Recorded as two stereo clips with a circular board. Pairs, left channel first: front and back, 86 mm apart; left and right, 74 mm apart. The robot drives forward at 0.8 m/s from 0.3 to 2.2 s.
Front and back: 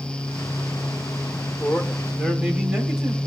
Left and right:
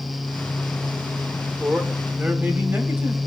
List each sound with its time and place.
1.6 s a man speaking: 65° right, 1.5 m; by 3.2 s 105° right, 1.5 m